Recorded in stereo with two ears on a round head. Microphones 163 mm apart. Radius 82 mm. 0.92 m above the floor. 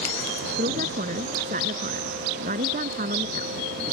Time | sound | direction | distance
0.6 | a woman speaking | 45° right (ahead or behind) | ?